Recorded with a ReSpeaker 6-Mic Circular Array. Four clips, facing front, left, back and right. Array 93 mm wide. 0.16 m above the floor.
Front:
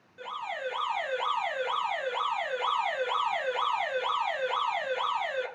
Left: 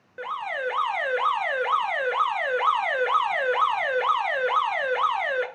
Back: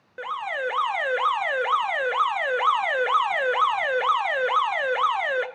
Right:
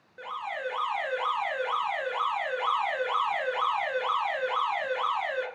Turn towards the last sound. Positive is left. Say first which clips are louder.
# left 5 dB, back 7 dB
turn(degrees=150)